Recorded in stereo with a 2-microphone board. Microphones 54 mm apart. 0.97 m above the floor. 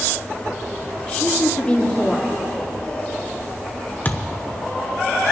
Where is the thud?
35° left (ahead or behind), 0.9 m.